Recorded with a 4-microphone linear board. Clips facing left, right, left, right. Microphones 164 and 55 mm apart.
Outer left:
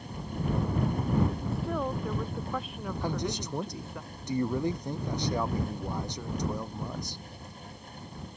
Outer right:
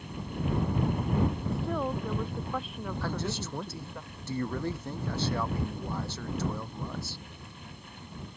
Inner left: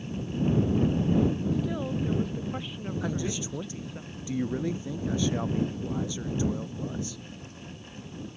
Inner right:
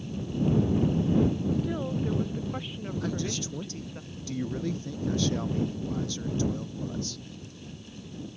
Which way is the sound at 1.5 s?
Centre (ahead or behind).